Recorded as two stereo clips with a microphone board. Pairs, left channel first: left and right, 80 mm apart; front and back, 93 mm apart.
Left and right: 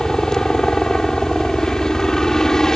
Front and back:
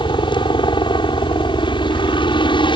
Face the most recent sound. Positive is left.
turn(degrees=10)